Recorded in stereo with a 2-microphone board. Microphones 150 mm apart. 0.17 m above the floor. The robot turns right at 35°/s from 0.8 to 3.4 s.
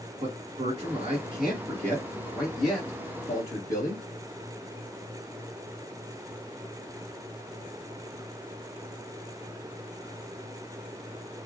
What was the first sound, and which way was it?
A man speaking, 45° right (ahead or behind).